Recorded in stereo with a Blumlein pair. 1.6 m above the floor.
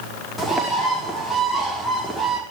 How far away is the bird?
About 5.5 m.